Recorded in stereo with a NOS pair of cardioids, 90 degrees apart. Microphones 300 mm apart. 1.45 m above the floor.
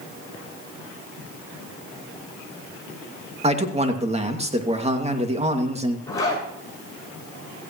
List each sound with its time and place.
3.4 s a man speaking: 20° right, 2.5 m
6.1 s a zipper: 10° left, 8 m